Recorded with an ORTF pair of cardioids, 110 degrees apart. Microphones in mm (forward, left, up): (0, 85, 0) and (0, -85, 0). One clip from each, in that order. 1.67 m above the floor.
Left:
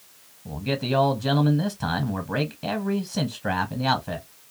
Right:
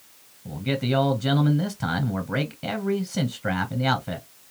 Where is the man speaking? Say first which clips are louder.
Even; 5° right, 0.9 m.